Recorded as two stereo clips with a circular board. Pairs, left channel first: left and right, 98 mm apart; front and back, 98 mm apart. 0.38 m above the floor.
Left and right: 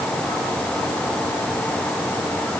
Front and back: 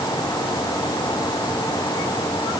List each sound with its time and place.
Only background noise.